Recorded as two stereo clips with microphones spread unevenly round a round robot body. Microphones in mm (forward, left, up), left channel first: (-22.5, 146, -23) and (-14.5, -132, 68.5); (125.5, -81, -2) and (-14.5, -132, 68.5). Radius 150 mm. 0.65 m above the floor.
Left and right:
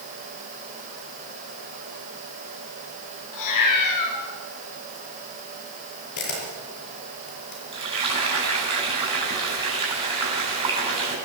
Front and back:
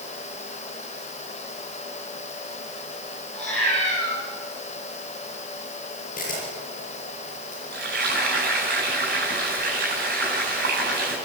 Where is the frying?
160° right, 8.5 m.